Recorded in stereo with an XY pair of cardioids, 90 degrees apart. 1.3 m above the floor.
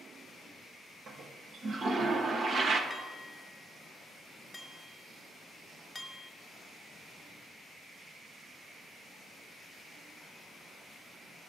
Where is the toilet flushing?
65° right, 1.1 m.